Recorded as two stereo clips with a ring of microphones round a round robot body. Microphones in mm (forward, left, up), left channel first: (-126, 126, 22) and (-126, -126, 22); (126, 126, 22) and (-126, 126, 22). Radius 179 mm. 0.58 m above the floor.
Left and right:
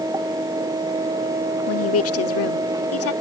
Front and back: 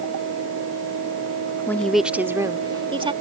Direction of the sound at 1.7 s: 80° left.